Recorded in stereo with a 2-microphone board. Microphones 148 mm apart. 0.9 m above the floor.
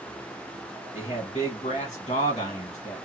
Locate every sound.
0.9 s a man speaking: 45° left (ahead or behind), 1.2 m